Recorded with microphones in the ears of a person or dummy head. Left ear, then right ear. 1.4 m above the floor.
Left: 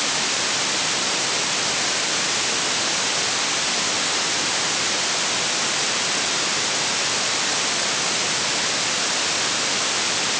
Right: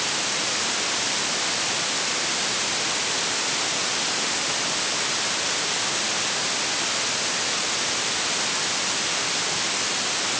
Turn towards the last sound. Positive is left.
No sound to turn to.